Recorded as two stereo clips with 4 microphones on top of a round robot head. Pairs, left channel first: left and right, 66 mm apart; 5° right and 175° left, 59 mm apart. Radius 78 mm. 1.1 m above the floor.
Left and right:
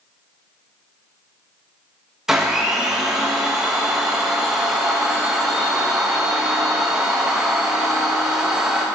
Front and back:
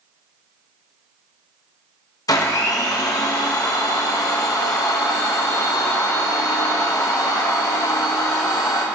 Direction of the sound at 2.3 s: 5° right.